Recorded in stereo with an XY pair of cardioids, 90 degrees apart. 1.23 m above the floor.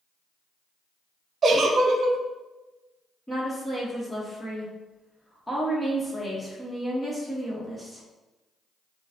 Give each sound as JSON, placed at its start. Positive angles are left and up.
{"t": 1.4, "sound": "a giggle", "azimuth_deg": -55, "distance_m": 0.6}
{"t": 3.3, "sound": "a woman speaking", "azimuth_deg": 10, "distance_m": 1.5}